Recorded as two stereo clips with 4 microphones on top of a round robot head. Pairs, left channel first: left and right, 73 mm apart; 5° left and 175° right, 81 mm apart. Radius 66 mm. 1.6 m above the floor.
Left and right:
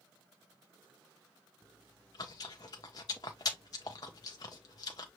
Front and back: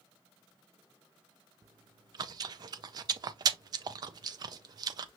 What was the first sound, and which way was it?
Chewing, 145° left.